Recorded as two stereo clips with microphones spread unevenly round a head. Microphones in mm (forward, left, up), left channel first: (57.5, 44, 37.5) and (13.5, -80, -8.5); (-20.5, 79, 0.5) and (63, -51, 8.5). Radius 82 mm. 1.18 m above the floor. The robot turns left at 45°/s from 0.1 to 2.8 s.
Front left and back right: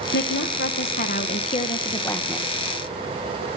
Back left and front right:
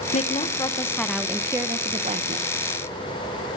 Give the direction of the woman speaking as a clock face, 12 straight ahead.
9 o'clock.